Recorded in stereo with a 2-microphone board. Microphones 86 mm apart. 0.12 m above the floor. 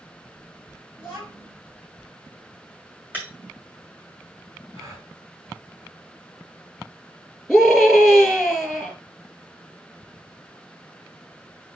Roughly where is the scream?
Centre.